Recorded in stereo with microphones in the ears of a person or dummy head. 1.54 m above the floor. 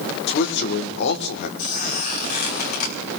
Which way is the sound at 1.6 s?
50° left (ahead or behind).